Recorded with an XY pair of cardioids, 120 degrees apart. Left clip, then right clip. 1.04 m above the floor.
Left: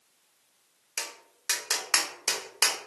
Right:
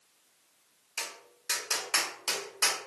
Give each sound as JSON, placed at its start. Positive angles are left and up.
{"t": 1.0, "sound": "tapping", "azimuth_deg": 50, "distance_m": 0.9}